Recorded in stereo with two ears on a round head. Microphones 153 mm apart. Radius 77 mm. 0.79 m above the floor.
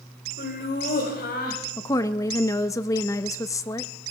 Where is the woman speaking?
20° left (ahead or behind), 0.7 m.